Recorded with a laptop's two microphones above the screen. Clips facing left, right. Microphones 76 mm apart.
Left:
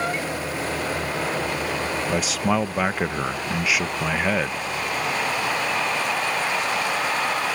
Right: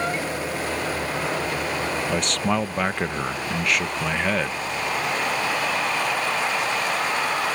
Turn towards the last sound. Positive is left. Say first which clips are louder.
# left 2 dB
turn(degrees=5)  # may be behind; listen again after turning